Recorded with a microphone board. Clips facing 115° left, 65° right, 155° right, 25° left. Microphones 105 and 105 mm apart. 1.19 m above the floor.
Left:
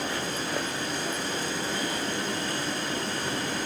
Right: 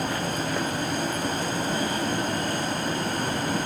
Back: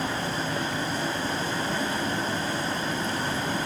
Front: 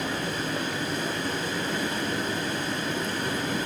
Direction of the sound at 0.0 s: 100° right.